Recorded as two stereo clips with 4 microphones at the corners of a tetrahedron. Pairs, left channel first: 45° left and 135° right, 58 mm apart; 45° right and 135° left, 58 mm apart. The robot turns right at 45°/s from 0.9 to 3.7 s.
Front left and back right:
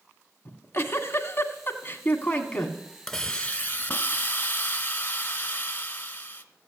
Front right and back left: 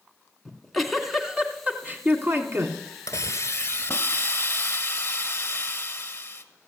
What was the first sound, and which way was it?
A giggle, 45° left.